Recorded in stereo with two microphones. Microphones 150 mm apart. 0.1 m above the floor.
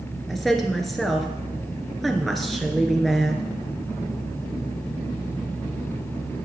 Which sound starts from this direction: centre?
A woman speaking, at 0.3 s.